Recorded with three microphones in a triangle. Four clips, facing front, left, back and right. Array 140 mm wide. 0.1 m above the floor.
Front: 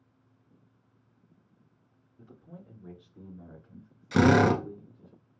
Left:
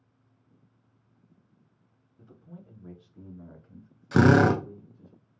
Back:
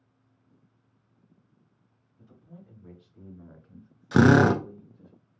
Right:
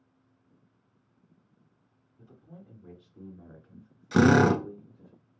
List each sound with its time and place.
2.2 s a man speaking: 25° left, 1.7 m; by 5.1 s 130° right, 1.9 m
4.1 s a drill: 160° left, 0.8 m